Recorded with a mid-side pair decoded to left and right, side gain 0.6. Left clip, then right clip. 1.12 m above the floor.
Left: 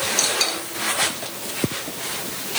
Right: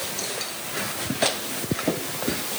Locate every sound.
Only background noise.